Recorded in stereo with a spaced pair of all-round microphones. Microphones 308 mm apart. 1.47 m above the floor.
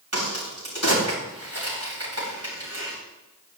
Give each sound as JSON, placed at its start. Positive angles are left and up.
{"t": 0.1, "sound": "a crack", "side_deg": -50, "distance_m": 10.0}